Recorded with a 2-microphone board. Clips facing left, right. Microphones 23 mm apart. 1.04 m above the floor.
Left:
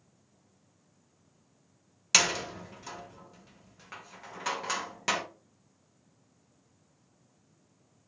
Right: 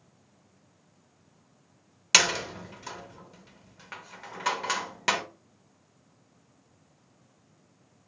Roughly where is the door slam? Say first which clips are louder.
Right 3 dB; right.